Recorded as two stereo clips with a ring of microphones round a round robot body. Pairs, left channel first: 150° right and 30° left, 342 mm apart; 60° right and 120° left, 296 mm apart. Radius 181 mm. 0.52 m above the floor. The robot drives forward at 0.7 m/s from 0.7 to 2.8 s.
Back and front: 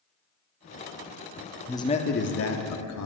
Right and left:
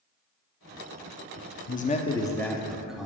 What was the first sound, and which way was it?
A man speaking, 70° right.